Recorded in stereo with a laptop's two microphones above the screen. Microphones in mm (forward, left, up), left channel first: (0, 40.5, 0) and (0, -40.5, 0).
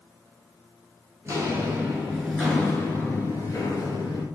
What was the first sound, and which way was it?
Footsteps, 35° right (ahead or behind).